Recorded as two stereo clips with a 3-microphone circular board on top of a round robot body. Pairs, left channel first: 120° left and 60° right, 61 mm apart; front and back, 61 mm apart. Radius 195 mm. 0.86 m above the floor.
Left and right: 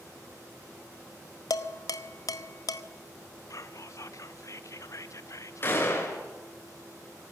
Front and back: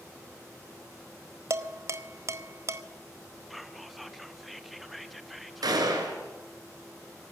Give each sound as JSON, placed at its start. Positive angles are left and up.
{"t": 1.5, "sound": "dishes clattering", "azimuth_deg": 140, "distance_m": 1.1}
{"t": 3.5, "sound": "whispering", "azimuth_deg": 90, "distance_m": 1.5}
{"t": 5.6, "sound": "a gunshot", "azimuth_deg": 175, "distance_m": 3.5}